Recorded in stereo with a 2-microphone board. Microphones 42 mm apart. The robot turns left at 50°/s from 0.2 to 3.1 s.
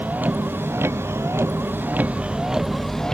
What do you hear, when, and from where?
0.0 s a vehicle: 40° right (ahead or behind); by 3.1 s 15° left (ahead or behind)